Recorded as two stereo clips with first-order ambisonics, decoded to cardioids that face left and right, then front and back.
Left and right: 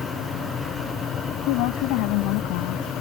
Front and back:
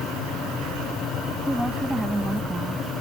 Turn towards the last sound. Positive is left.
turn(degrees=95)